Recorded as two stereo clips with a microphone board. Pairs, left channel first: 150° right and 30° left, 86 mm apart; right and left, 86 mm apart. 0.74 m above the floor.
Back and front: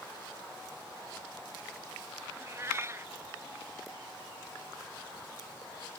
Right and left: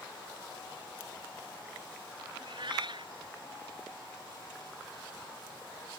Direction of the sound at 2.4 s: 85° left.